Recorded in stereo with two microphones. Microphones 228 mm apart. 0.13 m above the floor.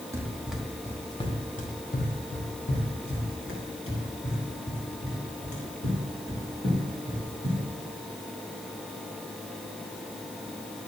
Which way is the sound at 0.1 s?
15° right (ahead or behind).